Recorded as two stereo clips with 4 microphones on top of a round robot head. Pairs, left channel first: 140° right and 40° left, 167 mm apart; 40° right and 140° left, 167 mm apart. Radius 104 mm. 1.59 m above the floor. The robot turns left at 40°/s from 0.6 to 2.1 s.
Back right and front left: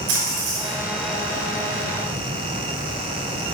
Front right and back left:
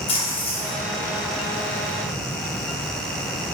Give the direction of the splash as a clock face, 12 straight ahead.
11 o'clock.